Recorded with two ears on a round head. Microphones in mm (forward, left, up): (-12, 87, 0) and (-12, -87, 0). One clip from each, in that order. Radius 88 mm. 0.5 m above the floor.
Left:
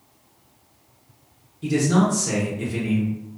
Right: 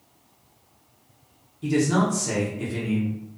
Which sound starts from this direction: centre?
A man speaking, at 1.6 s.